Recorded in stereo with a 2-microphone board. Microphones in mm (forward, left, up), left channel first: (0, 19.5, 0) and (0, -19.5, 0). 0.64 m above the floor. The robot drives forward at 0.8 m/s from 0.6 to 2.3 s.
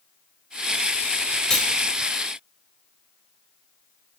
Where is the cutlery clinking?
15° left (ahead or behind), 0.9 m; by 1.7 s 20° left (ahead or behind), 0.8 m.